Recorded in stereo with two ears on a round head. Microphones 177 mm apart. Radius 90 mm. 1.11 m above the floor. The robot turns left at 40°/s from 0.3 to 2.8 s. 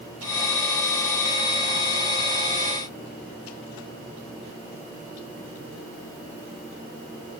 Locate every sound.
Only background noise.